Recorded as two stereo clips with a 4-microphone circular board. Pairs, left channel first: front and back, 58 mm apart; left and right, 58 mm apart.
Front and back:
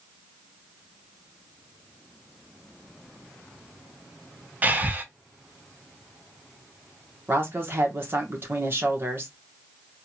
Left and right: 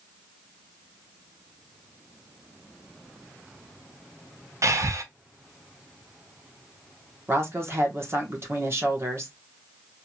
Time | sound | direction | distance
4.6 | breathing | 120° right | 0.6 m
7.3 | a woman speaking | 130° right | 1.3 m